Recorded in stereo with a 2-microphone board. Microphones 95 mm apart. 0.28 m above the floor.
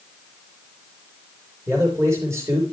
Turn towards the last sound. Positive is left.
turn(degrees=-30)  # may be behind; listen again after turning